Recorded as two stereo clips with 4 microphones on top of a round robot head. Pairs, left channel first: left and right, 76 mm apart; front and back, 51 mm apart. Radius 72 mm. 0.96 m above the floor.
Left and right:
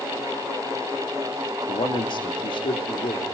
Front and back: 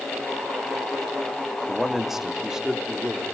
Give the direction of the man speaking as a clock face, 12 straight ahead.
9 o'clock.